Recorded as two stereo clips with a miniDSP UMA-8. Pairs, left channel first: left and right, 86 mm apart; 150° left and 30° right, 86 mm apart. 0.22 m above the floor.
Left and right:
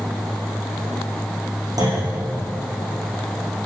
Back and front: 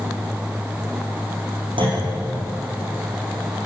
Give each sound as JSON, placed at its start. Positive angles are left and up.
{"t": 1.8, "sound": "a clunk", "azimuth_deg": -45, "distance_m": 9.5}